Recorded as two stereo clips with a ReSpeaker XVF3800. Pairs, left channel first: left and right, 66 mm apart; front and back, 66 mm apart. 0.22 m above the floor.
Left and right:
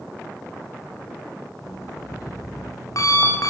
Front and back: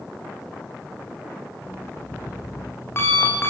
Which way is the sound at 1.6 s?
55° left.